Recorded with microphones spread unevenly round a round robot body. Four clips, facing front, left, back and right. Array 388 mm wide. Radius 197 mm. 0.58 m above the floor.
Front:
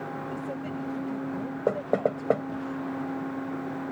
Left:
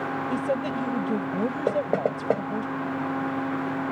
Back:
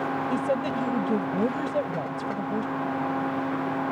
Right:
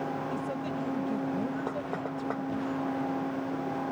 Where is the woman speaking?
155° left.